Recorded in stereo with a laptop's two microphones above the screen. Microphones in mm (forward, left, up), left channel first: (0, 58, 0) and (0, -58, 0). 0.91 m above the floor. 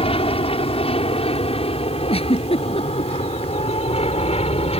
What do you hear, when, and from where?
0.0 s an aircraft: 60° left (ahead or behind); by 4.8 s 65° left (ahead or behind)
2.1 s a giggle: 60° left (ahead or behind)